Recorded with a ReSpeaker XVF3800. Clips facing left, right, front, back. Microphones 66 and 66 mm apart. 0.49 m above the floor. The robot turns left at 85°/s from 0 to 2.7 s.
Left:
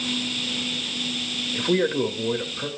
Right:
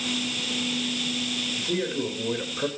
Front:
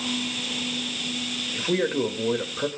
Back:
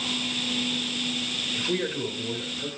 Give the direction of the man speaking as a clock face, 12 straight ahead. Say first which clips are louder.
Left 8 dB, front 5 dB; 10 o'clock.